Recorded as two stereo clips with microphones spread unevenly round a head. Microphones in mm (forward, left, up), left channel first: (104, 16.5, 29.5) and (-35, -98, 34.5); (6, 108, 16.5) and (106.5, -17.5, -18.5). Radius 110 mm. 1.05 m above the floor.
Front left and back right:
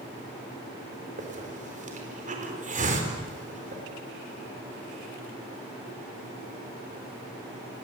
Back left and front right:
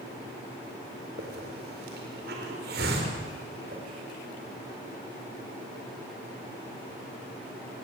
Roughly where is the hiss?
Right.